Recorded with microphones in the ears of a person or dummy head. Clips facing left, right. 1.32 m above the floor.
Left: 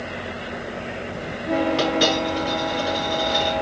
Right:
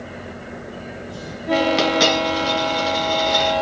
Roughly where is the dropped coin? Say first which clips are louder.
Right 2 dB; right.